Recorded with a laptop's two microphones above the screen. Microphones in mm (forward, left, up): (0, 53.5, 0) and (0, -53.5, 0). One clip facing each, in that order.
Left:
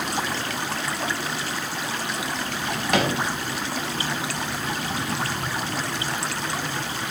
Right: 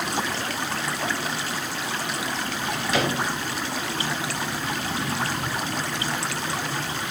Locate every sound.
2.5 s a drawer: 60° left (ahead or behind), 1.4 m